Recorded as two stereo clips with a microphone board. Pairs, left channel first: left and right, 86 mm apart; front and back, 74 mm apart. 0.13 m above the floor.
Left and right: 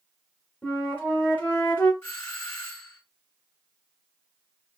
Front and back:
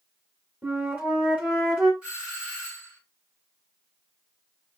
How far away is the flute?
About 1.8 m.